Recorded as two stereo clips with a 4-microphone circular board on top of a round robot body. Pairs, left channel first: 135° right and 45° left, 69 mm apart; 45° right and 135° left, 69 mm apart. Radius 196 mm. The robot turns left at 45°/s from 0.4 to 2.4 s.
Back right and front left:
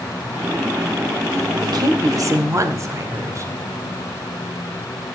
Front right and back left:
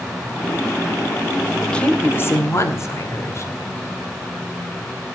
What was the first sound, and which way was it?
A woman speaking, 40° left.